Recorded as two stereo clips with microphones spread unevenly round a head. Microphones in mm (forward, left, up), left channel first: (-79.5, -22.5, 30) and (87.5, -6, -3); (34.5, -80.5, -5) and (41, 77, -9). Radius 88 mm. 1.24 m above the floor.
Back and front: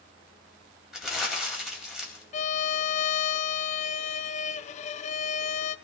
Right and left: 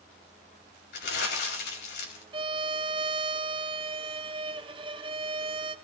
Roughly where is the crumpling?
Right.